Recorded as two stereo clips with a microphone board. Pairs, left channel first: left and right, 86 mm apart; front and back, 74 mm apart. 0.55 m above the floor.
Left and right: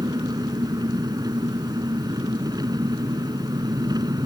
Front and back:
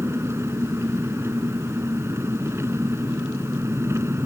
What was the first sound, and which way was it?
An engine running, 125° right.